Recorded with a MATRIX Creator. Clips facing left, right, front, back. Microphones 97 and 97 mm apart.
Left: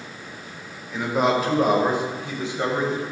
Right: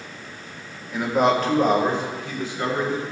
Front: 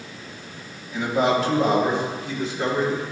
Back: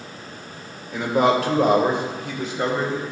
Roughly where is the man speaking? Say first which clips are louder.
Right 2 dB, back 2 dB; behind.